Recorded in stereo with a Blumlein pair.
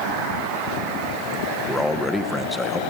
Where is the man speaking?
5° left, 1.3 m.